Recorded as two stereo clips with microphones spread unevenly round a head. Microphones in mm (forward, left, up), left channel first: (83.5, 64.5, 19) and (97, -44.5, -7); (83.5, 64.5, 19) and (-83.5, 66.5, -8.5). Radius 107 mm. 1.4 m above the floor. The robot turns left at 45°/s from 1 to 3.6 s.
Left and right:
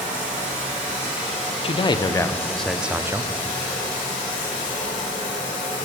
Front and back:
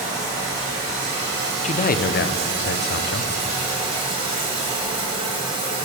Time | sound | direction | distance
0.0 | running water | 125° right | 3 m
1.6 | a man speaking | 55° left | 0.6 m